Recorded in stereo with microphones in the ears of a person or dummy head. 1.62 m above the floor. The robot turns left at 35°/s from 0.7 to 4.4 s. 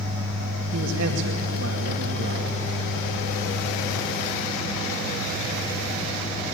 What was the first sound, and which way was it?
A man speaking, 80° right.